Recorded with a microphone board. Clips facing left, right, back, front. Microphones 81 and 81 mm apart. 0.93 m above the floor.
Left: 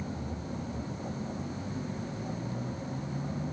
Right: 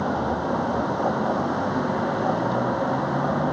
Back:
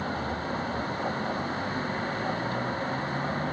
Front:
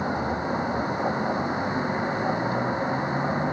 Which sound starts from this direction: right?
A vehicle, at 0.0 s.